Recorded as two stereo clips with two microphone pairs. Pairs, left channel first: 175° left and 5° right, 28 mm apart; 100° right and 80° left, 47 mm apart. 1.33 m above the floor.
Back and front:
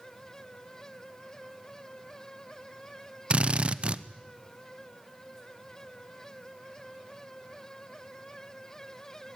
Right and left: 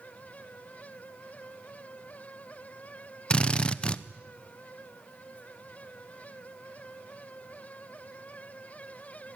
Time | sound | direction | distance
3.3 | a drill | 35° right | 0.8 m